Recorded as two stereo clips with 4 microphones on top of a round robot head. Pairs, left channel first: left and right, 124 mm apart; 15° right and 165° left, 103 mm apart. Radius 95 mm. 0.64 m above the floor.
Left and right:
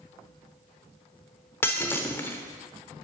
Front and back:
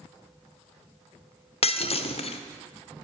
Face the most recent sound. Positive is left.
turn(degrees=15)